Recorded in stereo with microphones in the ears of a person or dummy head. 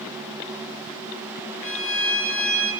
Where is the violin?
80° left, 4.5 m.